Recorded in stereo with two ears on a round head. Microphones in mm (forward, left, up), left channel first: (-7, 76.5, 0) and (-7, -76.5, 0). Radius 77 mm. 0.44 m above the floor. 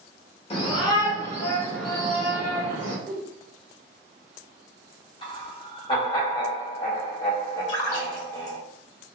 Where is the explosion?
No explosion in this recording.